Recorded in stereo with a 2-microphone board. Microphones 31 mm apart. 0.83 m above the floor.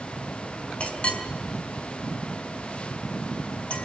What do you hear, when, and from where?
0.8 s a clink: 50° left (ahead or behind), 3.5 m